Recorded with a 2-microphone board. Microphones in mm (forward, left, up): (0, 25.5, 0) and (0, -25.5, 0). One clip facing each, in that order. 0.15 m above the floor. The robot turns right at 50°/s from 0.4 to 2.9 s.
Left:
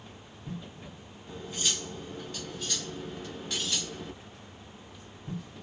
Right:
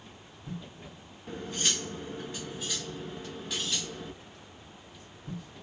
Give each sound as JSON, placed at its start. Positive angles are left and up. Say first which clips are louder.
{"t": 1.3, "sound": "cutlery clinking", "louder": "right 2 dB", "azimuth_deg": -85, "distance_m": 1.0}